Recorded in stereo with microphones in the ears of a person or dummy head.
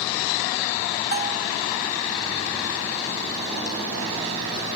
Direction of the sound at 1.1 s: 45° right (ahead or behind).